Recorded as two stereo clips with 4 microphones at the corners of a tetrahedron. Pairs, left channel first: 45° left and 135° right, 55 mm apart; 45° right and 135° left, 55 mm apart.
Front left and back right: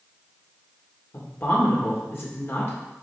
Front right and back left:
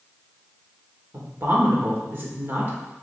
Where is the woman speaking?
85° left, 1.9 m.